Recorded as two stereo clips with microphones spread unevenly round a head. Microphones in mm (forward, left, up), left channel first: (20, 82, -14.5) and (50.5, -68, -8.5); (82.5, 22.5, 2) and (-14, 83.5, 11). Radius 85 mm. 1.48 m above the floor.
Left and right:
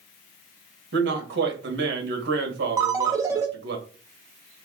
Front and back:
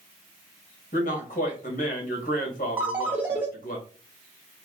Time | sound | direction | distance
0.9 | a man speaking | 80° right | 1.5 m
2.8 | a ringtone | 140° right | 0.7 m